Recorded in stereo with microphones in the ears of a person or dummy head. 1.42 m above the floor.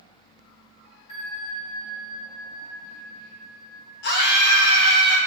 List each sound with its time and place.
1.1 s a bell: 35° left (ahead or behind), 2 m
4.0 s a scream: 55° left (ahead or behind), 1.9 m